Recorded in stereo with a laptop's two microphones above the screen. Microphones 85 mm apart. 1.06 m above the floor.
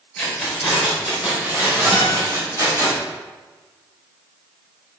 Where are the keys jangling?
15° left (ahead or behind), 2.5 m; by 2.9 s 45° right (ahead or behind), 4.5 m.